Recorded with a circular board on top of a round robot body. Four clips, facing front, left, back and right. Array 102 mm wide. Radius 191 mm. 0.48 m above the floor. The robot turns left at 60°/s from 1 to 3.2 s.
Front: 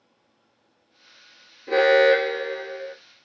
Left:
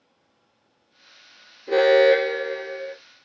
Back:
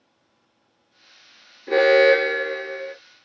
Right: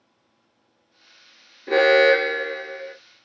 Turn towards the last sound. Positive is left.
turn(degrees=165)